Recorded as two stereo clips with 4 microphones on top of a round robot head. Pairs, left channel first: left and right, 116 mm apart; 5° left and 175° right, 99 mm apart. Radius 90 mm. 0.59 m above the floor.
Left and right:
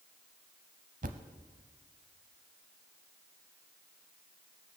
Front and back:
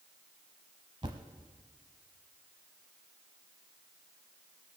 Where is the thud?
115° right, 0.7 m.